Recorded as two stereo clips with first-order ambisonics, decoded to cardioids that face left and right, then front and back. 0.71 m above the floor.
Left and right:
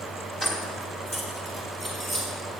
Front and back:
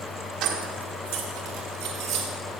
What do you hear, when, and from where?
0.4 s keys jangling: 155° left, 1.3 m; by 2.3 s straight behind, 3 m